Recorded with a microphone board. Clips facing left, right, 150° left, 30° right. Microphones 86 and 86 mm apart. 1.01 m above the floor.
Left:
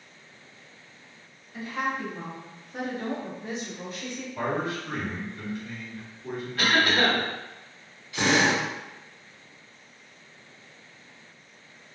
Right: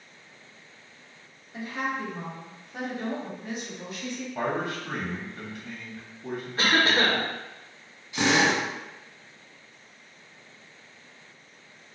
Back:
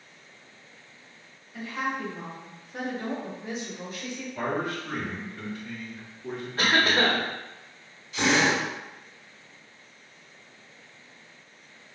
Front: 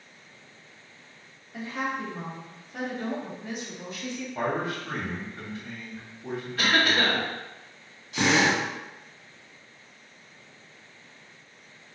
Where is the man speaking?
85° right, 1.1 m.